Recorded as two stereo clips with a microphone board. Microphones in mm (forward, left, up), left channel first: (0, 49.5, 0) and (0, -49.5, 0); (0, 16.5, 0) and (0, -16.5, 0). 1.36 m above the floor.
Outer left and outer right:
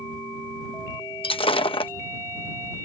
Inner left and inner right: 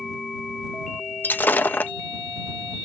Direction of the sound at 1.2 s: 65° left (ahead or behind).